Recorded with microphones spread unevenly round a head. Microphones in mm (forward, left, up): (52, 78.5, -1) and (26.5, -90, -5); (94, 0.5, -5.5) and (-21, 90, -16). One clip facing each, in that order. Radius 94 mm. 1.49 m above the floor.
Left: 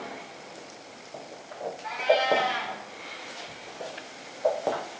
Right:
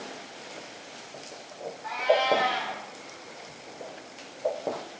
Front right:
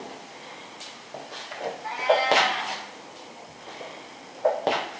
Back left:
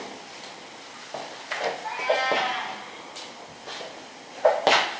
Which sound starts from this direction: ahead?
A cat meowing, at 1.8 s.